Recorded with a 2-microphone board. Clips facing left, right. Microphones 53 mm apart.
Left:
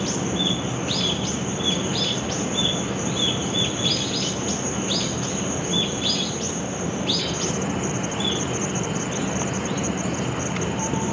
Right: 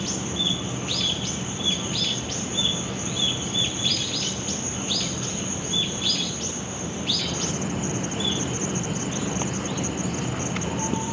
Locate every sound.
0.0 s an insect: 45° left (ahead or behind), 3.5 m